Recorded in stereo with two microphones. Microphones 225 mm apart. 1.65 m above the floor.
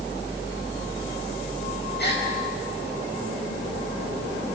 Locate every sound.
2.0 s a gasp: 50° left (ahead or behind), 5 m